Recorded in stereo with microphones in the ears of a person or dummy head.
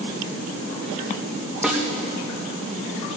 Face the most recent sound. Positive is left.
turn(degrees=-5)  # may be behind; listen again after turning